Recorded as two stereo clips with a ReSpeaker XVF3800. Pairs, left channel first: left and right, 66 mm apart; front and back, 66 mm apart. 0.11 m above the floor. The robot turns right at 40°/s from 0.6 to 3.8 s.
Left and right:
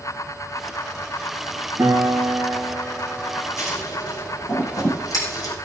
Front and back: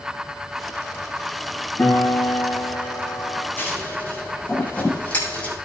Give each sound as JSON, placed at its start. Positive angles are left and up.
{"t": 1.8, "sound": "a piano", "azimuth_deg": -45, "distance_m": 5.0}
{"t": 3.6, "sound": "scissors", "azimuth_deg": 60, "distance_m": 5.5}